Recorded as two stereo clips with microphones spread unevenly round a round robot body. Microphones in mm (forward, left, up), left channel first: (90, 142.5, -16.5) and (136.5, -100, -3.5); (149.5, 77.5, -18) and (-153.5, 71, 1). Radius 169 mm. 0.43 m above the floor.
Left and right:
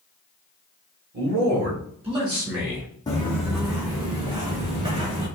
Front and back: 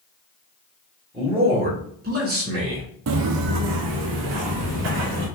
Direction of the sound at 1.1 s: 105° right.